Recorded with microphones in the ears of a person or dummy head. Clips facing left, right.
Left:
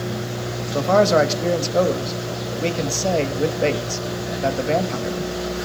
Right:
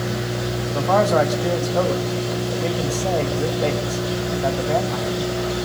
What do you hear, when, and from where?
0.7 s a man speaking: 35° left (ahead or behind), 1.4 m